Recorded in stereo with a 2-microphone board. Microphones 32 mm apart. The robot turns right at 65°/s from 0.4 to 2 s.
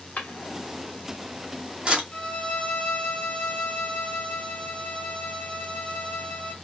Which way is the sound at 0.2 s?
50° left (ahead or behind).